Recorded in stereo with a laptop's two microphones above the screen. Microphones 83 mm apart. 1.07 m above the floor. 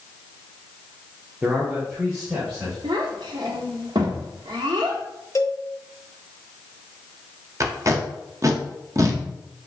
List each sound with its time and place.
1.4 s a man speaking: 15° right (ahead or behind), 0.5 m; by 2.7 s 30° right (ahead or behind), 1.5 m
2.8 s a child speaking: 65° right (ahead or behind), 1.2 m
5.3 s a cowbell: 40° left (ahead or behind), 0.8 m
7.6 s tape being pulled: 40° right (ahead or behind), 0.5 m